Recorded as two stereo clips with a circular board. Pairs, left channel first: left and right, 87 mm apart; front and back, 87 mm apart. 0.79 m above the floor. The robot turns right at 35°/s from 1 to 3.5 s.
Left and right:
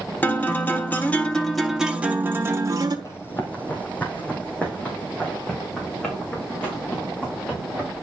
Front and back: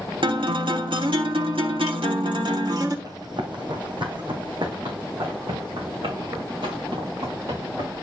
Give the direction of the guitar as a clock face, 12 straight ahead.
7 o'clock.